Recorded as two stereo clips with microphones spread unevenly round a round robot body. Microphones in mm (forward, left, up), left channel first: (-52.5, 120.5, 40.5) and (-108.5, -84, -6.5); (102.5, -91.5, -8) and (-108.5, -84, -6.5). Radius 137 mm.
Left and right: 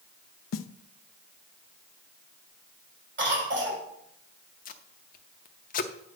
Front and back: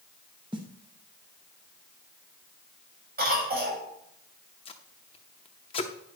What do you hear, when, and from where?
0.5 s a snare drum: 105° left, 0.6 m
3.2 s a cough: 140° right, 5.5 m
4.7 s tape being pulled: 60° left, 0.6 m